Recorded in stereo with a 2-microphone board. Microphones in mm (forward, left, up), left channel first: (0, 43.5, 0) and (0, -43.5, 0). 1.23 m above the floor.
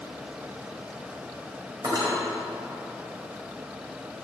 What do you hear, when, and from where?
1.8 s cutlery clinking: 45° right (ahead or behind), 4 m